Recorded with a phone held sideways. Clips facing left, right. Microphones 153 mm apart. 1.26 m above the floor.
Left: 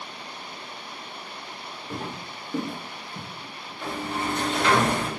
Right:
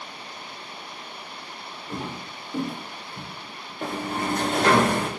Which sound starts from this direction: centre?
Footsteps, at 1.9 s.